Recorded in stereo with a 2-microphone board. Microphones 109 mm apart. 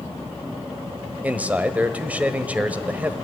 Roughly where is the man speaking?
Centre.